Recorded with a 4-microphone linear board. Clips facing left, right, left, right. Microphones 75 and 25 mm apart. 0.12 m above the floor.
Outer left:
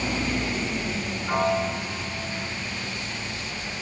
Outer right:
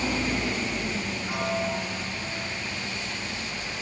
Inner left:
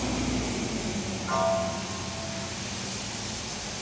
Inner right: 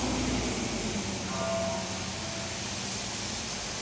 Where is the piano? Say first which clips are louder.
Outer left 6 dB, inner left 6 dB; 40° left (ahead or behind), 2.5 m.